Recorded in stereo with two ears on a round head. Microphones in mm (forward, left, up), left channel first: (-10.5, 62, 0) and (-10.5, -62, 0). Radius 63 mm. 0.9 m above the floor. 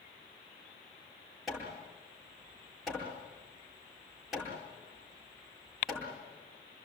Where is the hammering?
Centre (ahead or behind), 9 m.